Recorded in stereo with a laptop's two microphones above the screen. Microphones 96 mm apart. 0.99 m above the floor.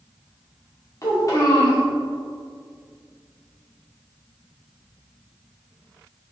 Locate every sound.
1.0 s a child speaking: 40° left (ahead or behind), 1.5 m